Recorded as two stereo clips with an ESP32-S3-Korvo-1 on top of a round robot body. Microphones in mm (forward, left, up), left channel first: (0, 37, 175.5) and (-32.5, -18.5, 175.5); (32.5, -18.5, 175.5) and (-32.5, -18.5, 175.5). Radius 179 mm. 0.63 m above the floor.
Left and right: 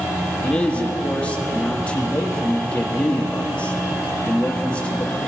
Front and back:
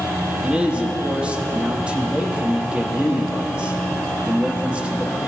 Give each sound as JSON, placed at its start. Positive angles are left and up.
{"t": 0.4, "sound": "a man speaking", "azimuth_deg": 120, "distance_m": 1.1}